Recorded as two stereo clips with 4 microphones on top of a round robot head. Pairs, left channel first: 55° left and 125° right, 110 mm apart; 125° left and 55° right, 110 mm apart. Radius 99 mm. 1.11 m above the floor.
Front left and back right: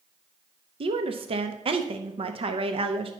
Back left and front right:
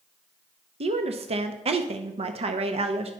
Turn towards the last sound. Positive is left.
turn(degrees=-85)